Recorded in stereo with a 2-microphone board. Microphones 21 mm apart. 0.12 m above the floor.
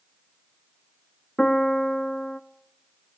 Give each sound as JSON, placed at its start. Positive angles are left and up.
{"t": 1.4, "sound": "a piano", "side_deg": 25, "distance_m": 0.5}